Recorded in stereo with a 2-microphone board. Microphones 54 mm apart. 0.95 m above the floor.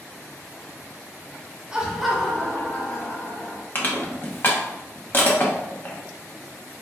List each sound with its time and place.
1.7 s laughter: 20° right (ahead or behind), 0.9 m; by 3.6 s 45° left (ahead or behind), 1.5 m
3.8 s crushing: 40° left (ahead or behind), 0.9 m